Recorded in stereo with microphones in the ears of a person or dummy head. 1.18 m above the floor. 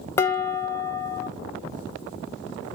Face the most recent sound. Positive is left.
turn(degrees=10)  # may be behind; listen again after turning